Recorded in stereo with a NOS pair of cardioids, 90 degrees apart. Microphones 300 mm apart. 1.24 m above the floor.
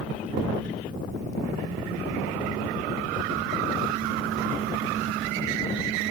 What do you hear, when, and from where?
0.4 s a thud: 65° right, 1.6 m